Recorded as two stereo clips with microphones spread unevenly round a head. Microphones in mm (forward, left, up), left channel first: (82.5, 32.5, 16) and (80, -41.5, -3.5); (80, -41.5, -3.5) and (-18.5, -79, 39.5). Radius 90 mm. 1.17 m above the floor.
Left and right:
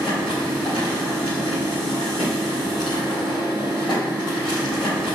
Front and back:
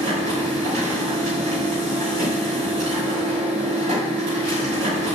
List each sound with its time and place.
0.0 s a machine running: 170° left, 3.5 m